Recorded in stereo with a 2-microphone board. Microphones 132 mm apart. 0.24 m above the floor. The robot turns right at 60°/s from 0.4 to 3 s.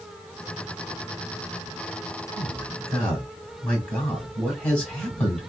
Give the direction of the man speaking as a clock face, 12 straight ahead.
1 o'clock.